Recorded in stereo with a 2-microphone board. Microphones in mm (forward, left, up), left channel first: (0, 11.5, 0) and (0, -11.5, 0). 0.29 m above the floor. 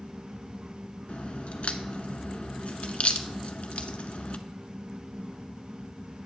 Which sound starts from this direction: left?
A crack, at 1.1 s.